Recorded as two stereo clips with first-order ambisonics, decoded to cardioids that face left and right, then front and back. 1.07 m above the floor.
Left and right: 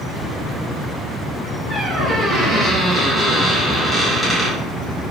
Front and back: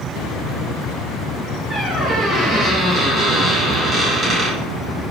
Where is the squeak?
Straight behind, 0.7 m.